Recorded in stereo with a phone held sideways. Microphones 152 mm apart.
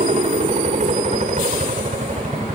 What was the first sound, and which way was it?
A helicopter, 50° right (ahead or behind).